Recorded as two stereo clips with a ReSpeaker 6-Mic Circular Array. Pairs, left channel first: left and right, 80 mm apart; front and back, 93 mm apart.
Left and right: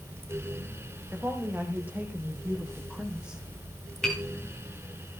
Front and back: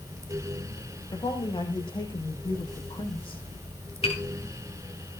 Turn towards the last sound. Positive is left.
turn(degrees=5)